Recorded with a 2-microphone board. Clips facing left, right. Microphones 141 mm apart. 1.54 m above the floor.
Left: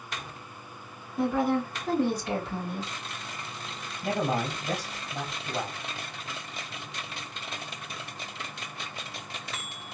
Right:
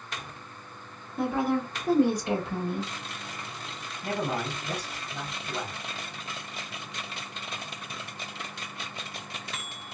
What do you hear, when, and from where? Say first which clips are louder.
1.2 s a woman speaking: left 1 dB; 5° left (ahead or behind), 1.3 m; by 2.9 s 35° right (ahead or behind), 1.3 m
4.0 s a man speaking: left 2 dB; 30° left (ahead or behind), 2.0 m